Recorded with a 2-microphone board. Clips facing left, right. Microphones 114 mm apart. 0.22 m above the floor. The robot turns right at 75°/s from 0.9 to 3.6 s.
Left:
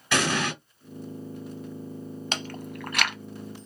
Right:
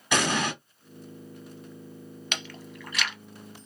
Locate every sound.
0.1 s an explosion: 15° right (ahead or behind), 1.7 m
2.3 s chewing: 35° left (ahead or behind), 0.5 m; by 3.1 s 50° left (ahead or behind), 0.5 m